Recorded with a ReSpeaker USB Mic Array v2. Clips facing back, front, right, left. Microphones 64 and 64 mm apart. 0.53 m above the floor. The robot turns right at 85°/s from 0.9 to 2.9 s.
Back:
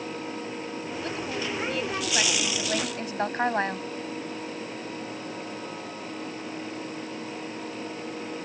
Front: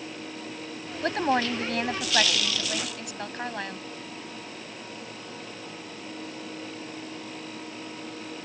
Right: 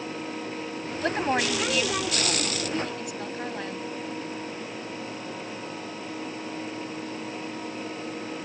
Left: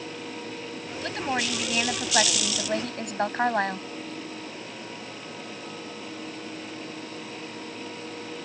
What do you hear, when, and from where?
1.0 s a woman speaking: 35° right; by 3.9 s 125° left